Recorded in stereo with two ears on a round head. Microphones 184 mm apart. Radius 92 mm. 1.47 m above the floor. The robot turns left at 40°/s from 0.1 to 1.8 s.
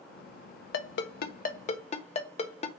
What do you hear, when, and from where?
0.7 s a ringtone: 55° left (ahead or behind), 0.6 m; by 2.7 s 30° left (ahead or behind), 0.6 m